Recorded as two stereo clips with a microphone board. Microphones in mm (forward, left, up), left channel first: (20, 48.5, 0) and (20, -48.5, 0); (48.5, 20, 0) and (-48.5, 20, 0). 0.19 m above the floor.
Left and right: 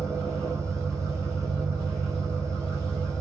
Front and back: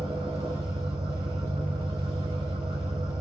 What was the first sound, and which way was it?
An engine running, 155° left.